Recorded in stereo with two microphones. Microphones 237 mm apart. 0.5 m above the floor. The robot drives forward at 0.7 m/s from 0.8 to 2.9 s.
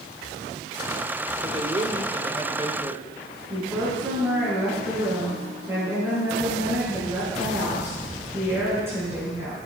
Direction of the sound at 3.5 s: 10° right (ahead or behind).